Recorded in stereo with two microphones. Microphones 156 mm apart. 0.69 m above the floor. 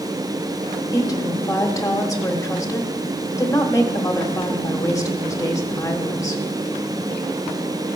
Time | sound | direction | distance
0.9 | a woman speaking | 20° left (ahead or behind) | 1.3 m